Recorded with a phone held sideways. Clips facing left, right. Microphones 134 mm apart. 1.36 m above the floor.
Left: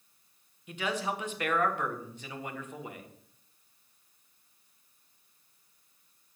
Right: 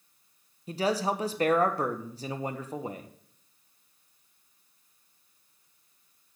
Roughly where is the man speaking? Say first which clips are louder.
Right 6 dB; right.